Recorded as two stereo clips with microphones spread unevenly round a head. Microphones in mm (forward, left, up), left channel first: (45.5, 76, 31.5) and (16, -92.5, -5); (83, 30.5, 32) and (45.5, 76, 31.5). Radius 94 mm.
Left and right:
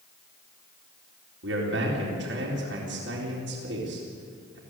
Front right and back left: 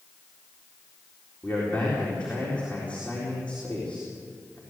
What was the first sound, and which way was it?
A man speaking, 130° right.